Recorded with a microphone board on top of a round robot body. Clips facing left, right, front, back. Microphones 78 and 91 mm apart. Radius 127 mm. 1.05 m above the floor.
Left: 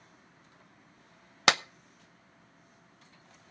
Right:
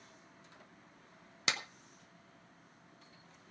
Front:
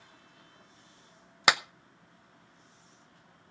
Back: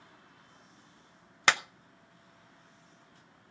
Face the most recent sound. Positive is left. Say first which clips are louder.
# left 12 dB, front 1 dB
turn(degrees=75)